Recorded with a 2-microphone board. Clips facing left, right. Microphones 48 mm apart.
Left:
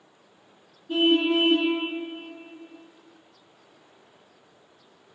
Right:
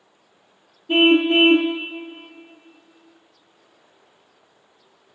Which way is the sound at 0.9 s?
65° right (ahead or behind).